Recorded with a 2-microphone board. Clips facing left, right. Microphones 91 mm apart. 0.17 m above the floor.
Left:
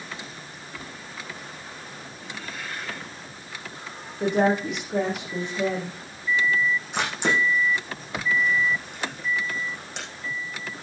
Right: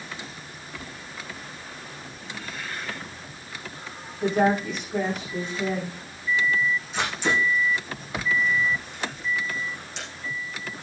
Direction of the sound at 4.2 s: 75° left (ahead or behind).